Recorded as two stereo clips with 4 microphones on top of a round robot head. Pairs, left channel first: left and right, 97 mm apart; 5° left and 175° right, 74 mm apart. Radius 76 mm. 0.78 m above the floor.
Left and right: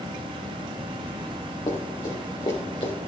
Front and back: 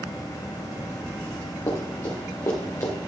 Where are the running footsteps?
45° left, 4 m; by 2.9 s 50° left, 2.5 m.